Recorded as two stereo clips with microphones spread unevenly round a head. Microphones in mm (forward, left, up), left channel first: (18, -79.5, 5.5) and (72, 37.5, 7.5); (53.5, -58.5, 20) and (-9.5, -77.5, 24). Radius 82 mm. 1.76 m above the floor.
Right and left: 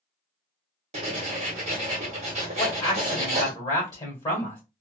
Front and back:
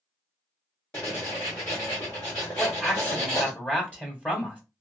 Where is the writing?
85° left, 1.1 m.